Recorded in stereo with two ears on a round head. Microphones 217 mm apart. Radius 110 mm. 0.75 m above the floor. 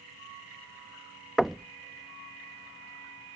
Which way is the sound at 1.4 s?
Centre (ahead or behind).